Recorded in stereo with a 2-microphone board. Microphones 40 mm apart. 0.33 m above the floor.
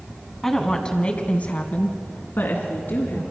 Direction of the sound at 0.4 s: 10° left (ahead or behind).